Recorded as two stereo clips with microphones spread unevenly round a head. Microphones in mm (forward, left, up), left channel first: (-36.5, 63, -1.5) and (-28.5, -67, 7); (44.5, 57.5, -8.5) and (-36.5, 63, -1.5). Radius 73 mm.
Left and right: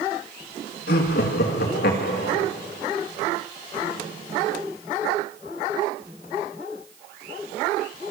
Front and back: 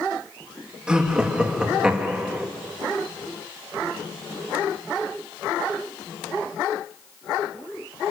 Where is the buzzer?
No buzzer in this recording.